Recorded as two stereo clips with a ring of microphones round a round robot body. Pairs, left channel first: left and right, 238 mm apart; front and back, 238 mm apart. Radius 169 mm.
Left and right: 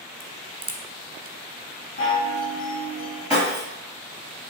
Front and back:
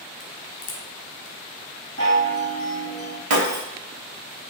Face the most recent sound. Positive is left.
turn(degrees=-175)